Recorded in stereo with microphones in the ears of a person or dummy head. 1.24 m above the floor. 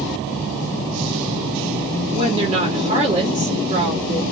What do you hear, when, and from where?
2.1 s a woman speaking: 30° right (ahead or behind), 1.5 m